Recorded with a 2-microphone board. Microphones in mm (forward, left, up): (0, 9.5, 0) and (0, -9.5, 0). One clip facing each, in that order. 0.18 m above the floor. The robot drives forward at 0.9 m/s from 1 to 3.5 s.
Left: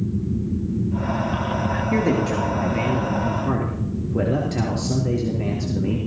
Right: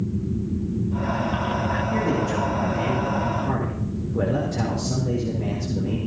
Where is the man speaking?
65° left (ahead or behind), 3 m; by 6.0 s 55° left (ahead or behind), 3.5 m.